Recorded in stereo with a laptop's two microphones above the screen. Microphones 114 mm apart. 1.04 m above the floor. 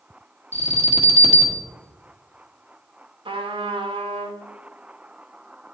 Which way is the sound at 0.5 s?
75° right (ahead or behind).